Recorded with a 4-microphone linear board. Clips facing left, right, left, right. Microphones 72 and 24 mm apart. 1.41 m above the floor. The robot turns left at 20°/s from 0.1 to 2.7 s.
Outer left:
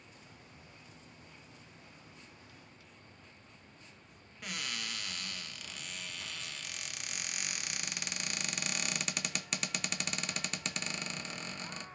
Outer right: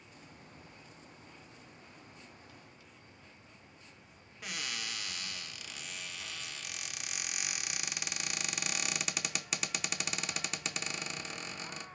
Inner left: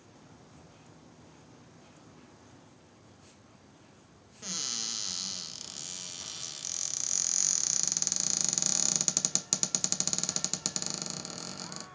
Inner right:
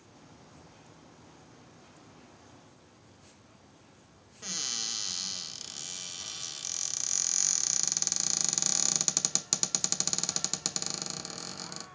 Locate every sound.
4.4 s a cupboard door: 5° right (ahead or behind), 0.8 m